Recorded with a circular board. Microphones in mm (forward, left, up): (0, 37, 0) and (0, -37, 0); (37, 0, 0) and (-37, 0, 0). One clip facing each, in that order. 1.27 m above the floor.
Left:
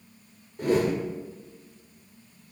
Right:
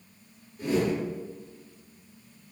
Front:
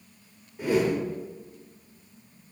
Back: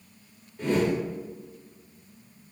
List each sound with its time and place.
0.6 s a whoosh: 75° left, 1.5 m